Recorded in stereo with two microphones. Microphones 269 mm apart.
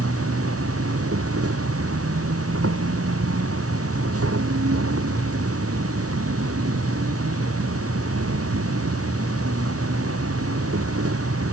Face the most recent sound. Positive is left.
turn(degrees=-60)  # may be behind; listen again after turning